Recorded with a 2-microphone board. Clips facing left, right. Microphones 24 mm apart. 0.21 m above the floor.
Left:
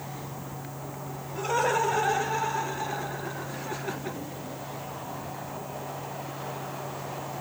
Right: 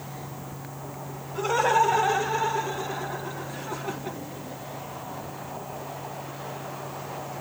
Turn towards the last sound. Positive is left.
turn(degrees=20)  # may be behind; listen again after turning